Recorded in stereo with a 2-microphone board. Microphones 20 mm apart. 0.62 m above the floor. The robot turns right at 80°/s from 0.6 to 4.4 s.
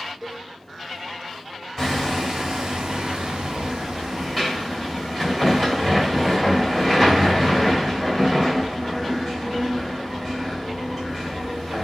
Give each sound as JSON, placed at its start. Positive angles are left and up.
{"t": 0.2, "sound": "a cowbell", "side_deg": -20, "distance_m": 1.2}
{"t": 1.8, "sound": "hammering", "azimuth_deg": 160, "distance_m": 1.6}